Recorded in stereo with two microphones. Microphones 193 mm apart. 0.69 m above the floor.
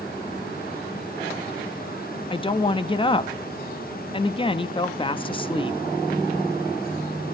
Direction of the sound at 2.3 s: 25° left (ahead or behind).